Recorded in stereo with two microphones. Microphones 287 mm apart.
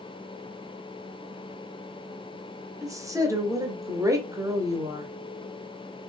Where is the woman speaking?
10° right (ahead or behind), 0.7 m.